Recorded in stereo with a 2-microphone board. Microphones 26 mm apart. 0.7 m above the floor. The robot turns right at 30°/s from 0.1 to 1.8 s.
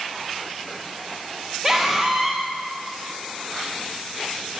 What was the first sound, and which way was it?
A scream, 20° right (ahead or behind).